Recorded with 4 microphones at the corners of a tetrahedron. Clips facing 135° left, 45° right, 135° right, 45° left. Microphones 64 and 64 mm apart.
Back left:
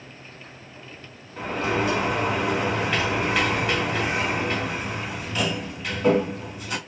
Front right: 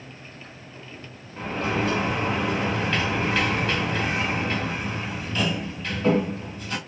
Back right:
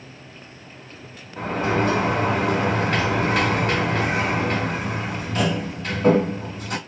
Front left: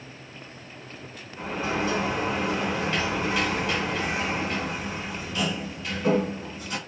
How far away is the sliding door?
About 1.9 m.